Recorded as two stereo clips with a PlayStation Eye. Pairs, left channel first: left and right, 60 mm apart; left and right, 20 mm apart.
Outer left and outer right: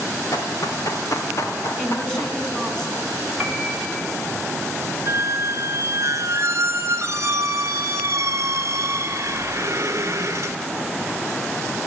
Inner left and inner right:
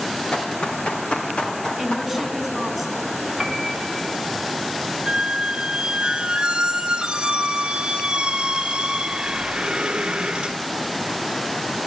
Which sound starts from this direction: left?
Running footsteps, at 0.3 s.